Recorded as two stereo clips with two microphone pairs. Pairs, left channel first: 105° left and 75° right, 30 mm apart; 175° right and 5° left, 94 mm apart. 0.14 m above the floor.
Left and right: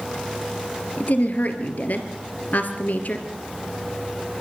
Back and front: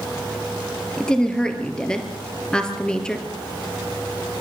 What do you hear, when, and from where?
1.0 s a woman speaking: 105° left, 2.5 m